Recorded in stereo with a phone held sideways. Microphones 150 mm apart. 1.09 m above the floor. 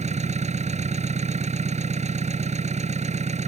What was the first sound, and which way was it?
An engine running, 50° right (ahead or behind).